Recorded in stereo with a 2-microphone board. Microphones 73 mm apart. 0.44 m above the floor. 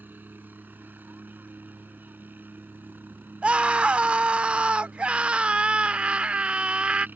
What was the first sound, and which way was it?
A helicopter, 25° right (ahead or behind).